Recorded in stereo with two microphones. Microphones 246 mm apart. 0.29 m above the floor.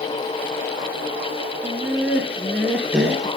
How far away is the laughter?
About 3.5 m.